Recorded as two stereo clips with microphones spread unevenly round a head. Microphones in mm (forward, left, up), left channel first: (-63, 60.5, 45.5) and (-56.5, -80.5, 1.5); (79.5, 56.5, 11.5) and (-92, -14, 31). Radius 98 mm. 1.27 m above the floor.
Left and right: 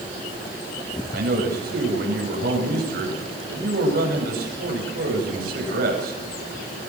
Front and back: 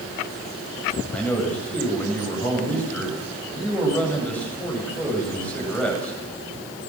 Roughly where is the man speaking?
Ahead right.